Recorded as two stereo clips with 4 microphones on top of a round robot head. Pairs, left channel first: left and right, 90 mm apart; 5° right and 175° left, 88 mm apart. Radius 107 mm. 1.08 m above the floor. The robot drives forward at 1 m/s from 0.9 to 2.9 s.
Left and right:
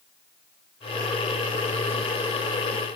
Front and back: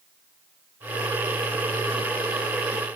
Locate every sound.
Only background noise.